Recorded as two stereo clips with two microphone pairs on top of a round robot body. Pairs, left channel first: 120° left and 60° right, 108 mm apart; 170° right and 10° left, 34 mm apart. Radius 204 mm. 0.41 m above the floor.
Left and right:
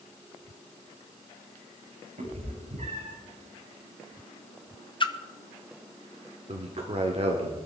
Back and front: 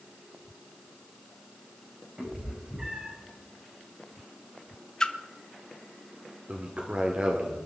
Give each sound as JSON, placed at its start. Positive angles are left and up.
{"t": 2.2, "sound": "a cat meowing", "azimuth_deg": -55, "distance_m": 8.5}
{"t": 5.0, "sound": "a splash", "azimuth_deg": 125, "distance_m": 1.5}
{"t": 6.5, "sound": "a man speaking", "azimuth_deg": -35, "distance_m": 2.0}